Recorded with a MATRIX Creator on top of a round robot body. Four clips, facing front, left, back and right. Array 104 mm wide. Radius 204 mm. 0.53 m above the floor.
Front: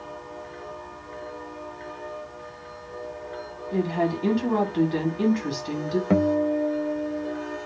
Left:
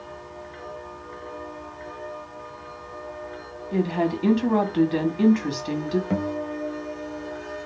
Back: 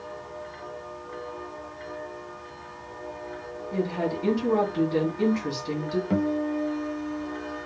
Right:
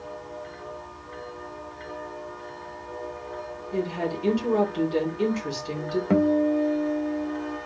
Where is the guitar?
35° right, 0.8 m.